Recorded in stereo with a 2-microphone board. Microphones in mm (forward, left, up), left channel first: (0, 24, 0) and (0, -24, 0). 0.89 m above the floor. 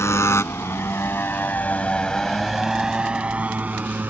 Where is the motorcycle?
75° left (ahead or behind); by 4.1 s 40° right (ahead or behind).